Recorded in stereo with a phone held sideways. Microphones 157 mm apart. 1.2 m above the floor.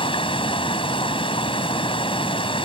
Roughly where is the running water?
Left.